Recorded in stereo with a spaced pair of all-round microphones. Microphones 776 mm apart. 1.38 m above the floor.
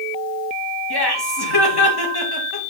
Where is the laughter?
30° left (ahead or behind), 1.8 m.